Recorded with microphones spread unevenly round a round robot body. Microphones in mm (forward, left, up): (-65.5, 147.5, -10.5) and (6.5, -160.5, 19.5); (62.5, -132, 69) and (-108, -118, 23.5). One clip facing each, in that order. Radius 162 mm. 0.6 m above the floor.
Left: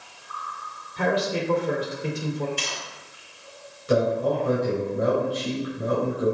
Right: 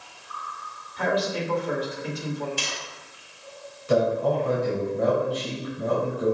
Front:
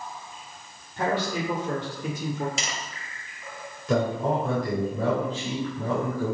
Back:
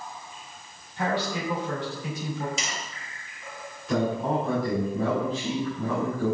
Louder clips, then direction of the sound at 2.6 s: Even, front 1 dB; 30° right.